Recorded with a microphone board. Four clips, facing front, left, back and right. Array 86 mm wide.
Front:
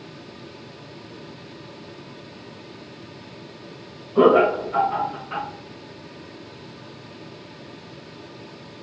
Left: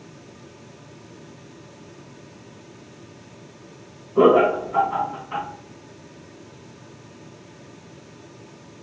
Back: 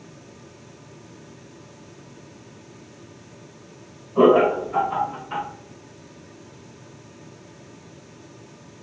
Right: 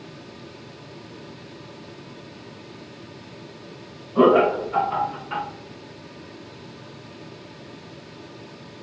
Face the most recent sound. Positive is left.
turn(degrees=-95)